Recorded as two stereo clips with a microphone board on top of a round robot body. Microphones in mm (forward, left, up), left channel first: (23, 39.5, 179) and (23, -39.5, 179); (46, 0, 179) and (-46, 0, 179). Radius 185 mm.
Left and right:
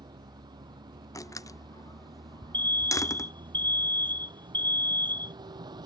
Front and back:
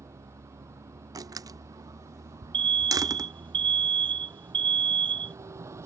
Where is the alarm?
155° left.